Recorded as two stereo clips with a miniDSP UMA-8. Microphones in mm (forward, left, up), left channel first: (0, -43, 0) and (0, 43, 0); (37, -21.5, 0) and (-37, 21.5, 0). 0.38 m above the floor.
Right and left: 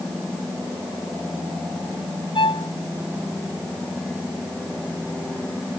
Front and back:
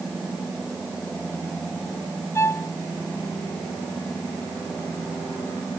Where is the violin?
85° right.